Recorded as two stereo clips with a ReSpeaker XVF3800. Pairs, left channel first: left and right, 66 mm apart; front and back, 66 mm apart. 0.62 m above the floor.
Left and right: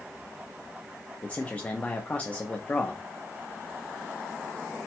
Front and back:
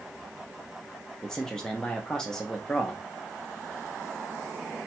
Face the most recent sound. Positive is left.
turn(degrees=65)